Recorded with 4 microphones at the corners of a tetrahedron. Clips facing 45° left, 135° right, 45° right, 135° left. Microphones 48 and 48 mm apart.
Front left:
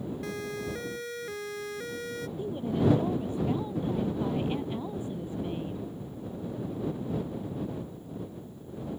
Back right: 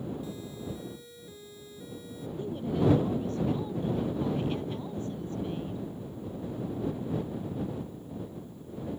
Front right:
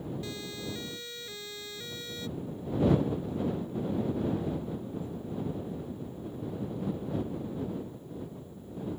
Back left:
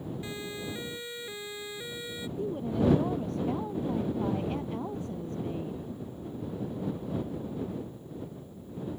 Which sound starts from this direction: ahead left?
A siren, at 0.2 s.